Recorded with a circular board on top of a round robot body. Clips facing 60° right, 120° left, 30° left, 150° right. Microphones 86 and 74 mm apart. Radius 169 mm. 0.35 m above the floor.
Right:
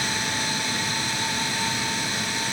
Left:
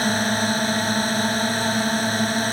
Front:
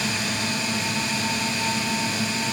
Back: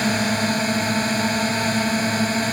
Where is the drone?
165° left.